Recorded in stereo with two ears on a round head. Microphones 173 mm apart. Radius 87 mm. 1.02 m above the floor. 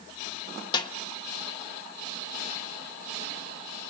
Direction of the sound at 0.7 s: 25° left (ahead or behind).